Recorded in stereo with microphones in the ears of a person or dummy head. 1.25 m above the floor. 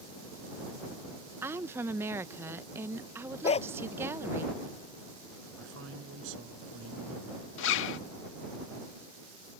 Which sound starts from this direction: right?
A man speaking, at 5.6 s.